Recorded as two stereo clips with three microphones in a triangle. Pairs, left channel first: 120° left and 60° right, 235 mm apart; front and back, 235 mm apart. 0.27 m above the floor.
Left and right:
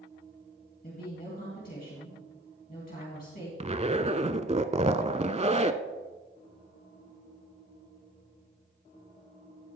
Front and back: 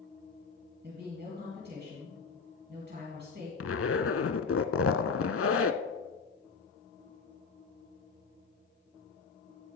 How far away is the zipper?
About 0.5 m.